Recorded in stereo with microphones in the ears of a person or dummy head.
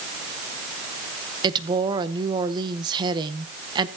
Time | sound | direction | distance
1.4 | a woman speaking | 25° right (ahead or behind) | 0.9 m